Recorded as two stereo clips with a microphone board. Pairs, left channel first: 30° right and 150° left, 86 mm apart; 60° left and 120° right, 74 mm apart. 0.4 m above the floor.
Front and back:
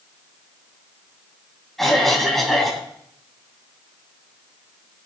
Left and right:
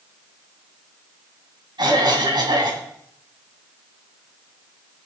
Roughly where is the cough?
Behind right.